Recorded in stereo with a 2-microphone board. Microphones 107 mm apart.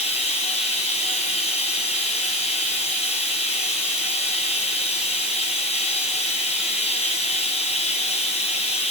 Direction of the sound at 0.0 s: 80° left.